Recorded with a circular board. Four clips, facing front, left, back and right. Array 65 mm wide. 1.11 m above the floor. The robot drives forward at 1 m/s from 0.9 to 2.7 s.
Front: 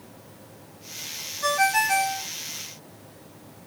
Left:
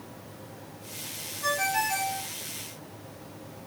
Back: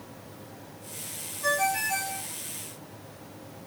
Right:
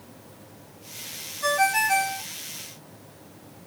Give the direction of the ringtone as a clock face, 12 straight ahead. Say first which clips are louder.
Right 5 dB, front 5 dB; 1 o'clock.